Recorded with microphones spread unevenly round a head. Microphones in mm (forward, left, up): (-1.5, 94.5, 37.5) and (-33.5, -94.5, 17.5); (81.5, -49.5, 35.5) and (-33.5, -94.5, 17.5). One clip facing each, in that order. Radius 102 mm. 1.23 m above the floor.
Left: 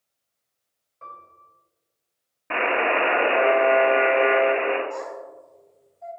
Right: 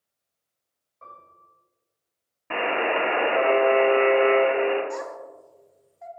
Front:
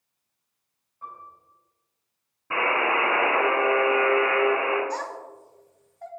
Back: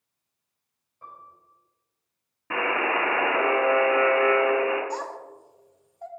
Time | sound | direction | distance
1.0 | a piano | 145° left | 3 m
2.5 | a buzzer | 165° left | 2.0 m
4.9 | a child speaking | 85° right | 1.4 m